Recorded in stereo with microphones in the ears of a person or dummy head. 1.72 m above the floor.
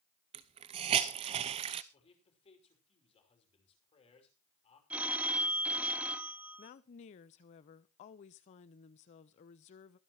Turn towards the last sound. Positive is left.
turn(degrees=35)  # may be behind; listen again after turning